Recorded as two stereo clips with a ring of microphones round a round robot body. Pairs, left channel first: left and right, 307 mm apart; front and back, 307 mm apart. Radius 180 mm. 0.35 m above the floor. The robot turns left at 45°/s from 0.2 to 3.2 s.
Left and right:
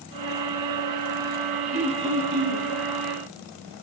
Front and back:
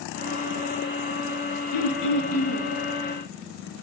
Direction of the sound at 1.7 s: 20° right.